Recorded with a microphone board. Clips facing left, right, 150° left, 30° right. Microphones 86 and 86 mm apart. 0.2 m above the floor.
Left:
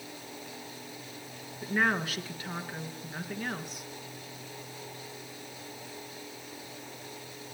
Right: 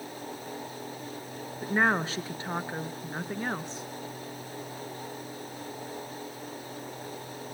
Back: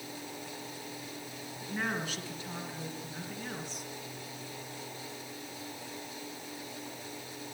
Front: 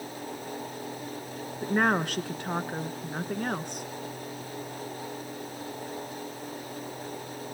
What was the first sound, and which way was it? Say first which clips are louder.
A woman speaking: right 3 dB, front 10 dB; 35° right.